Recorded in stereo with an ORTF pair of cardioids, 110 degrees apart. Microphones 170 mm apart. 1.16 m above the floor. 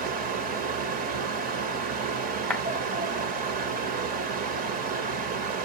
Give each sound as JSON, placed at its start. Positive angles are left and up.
{"t": 0.0, "sound": "a fan", "azimuth_deg": -60, "distance_m": 1.3}
{"t": 2.5, "sound": "a clap", "azimuth_deg": 5, "distance_m": 1.0}